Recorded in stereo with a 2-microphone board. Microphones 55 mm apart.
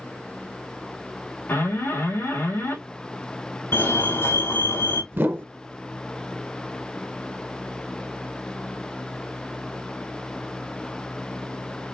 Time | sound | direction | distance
1.5 | an alarm | 40° left (ahead or behind) | 4 m
3.7 | a fire alarm | 45° left (ahead or behind) | 2 m
5.1 | a whoosh | 40° right (ahead or behind) | 0.6 m